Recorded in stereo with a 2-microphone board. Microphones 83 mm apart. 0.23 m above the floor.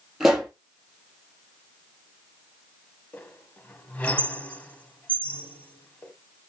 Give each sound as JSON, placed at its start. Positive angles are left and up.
{"t": 0.2, "sound": "a pop", "side_deg": -5, "distance_m": 3.5}
{"t": 3.1, "sound": "a squeak", "side_deg": 20, "distance_m": 0.6}